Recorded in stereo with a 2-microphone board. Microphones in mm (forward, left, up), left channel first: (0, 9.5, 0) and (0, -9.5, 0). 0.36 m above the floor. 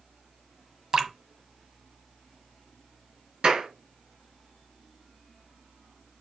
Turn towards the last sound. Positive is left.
turn(degrees=-65)  # may be behind; listen again after turning